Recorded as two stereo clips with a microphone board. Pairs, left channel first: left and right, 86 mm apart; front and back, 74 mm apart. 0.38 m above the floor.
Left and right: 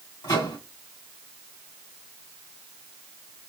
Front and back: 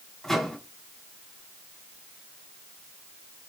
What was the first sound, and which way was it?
A microwave, 80° left.